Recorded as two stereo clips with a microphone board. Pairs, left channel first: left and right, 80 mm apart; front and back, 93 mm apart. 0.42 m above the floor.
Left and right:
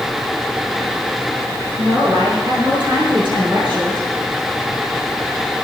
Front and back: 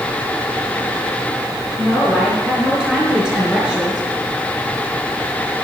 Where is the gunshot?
No gunshot in this recording.